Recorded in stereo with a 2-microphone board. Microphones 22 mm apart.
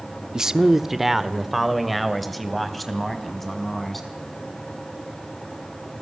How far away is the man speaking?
About 0.9 m.